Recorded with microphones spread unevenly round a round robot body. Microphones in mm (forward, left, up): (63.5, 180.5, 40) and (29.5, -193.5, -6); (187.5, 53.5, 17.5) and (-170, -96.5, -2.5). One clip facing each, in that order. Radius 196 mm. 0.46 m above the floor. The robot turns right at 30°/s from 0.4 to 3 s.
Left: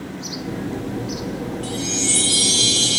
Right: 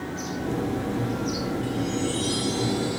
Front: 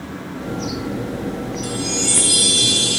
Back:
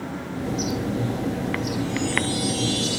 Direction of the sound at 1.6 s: 55° left.